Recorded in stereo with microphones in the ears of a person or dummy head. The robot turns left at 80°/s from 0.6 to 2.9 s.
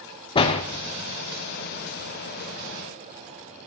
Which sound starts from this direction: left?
A door slam, at 0.3 s.